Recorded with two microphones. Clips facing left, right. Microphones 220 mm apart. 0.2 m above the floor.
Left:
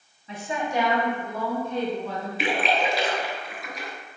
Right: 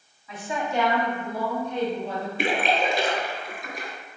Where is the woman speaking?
30° left (ahead or behind), 1.2 m; by 2.3 s 35° right (ahead or behind), 1.4 m.